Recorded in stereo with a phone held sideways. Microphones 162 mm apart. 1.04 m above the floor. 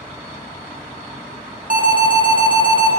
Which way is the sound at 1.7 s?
55° right (ahead or behind).